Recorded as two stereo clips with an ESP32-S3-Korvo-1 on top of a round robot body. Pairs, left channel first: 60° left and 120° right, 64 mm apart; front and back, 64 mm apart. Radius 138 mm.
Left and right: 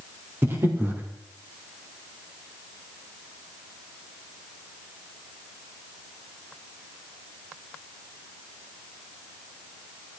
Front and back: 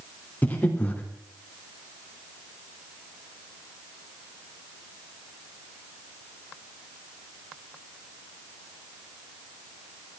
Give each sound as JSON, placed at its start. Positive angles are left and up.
{"t": 0.4, "sound": "breathing", "azimuth_deg": -65, "distance_m": 3.0}